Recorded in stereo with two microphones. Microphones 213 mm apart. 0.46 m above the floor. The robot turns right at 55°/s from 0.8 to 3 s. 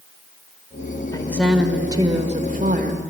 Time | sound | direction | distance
1.1 | a woman speaking | 160° left | 2.0 m